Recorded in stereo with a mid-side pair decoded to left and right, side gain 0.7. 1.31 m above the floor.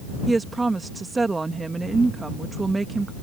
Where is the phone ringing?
No phone ringing in this recording.